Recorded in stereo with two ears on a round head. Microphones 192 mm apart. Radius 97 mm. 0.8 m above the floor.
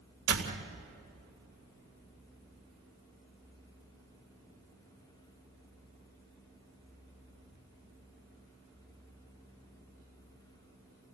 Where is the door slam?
85° right, 2.5 m.